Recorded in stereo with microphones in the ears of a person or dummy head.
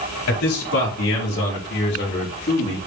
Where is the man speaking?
85° left, 4.5 m; by 2.8 s 45° left (ahead or behind), 3.5 m.